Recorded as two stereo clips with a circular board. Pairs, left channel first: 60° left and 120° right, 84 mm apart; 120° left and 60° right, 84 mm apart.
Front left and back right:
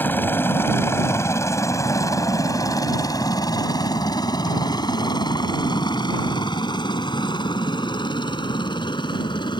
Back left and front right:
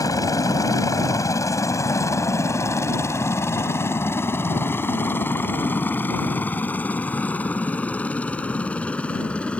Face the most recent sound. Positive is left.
turn(degrees=45)